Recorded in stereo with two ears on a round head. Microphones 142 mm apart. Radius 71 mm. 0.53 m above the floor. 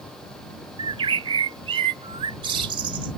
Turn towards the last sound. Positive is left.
turn(degrees=-35)  # may be behind; listen again after turning